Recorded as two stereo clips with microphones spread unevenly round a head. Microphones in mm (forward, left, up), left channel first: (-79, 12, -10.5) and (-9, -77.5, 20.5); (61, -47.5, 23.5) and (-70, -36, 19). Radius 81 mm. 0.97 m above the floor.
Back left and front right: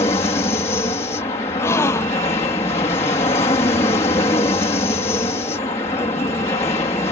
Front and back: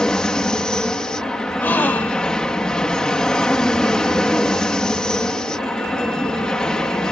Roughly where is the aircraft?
Left.